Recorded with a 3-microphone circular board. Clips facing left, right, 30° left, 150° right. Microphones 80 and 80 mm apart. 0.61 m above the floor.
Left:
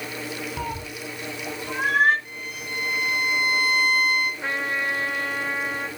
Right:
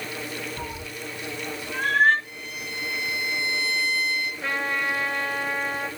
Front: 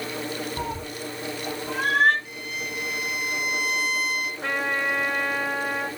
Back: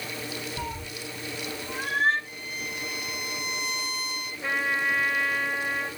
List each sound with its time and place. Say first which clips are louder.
0.6 s a cat meowing: left 3 dB, front 4 dB; 75° left, 1.6 m; by 2.1 s 10° left, 2.5 m
2.2 s a violin: left 2 dB, front 3 dB; 55° left, 4 m
4.4 s a trumpet: even, even; 25° left, 6 m